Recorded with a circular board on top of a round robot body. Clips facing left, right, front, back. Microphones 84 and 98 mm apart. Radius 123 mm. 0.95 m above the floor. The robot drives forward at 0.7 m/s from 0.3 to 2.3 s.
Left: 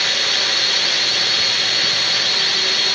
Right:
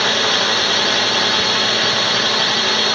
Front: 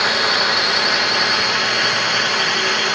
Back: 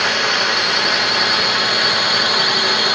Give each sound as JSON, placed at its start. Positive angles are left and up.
{"t": 0.0, "sound": "a drone", "azimuth_deg": -85}